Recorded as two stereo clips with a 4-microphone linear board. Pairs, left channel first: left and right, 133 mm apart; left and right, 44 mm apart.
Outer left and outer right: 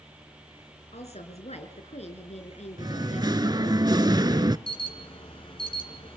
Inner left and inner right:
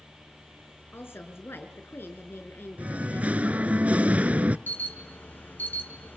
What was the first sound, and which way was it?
A woman speaking, 55° left (ahead or behind).